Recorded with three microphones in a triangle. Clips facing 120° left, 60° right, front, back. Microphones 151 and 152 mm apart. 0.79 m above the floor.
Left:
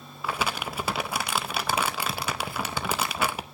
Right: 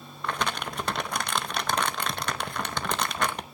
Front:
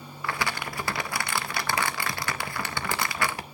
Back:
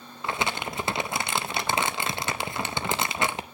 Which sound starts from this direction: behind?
Crumpling, at 0.2 s.